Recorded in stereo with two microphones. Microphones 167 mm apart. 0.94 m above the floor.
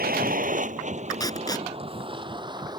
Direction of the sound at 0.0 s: 65° right (ahead or behind).